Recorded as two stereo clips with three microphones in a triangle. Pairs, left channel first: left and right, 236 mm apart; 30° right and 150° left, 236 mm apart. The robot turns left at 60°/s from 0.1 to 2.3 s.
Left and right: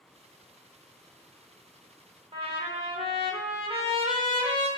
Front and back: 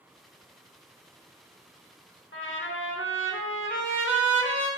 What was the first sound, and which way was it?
A trumpet, 25° right.